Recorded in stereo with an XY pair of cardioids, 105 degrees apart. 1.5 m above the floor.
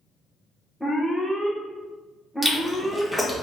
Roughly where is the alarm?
Ahead.